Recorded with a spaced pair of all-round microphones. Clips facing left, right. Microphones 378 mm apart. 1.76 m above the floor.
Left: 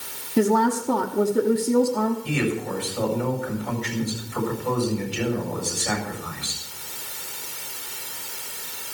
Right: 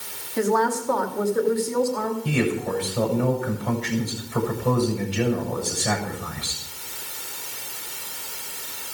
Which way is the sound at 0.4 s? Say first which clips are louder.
Left 2 dB; 45° left (ahead or behind).